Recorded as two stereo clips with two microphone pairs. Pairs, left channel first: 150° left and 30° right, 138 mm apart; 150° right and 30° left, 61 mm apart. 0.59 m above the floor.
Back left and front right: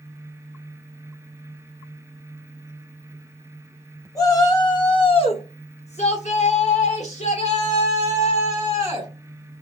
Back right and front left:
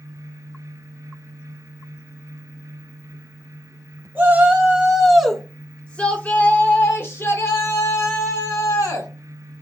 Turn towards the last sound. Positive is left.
turn(degrees=-170)